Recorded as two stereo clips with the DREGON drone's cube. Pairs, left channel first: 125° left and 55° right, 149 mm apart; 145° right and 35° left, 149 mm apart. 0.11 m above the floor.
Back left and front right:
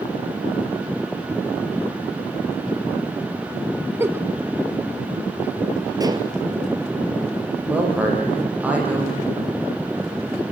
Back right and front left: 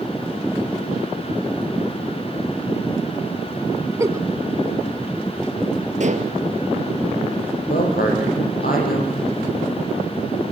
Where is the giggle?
5° right, 1.0 m.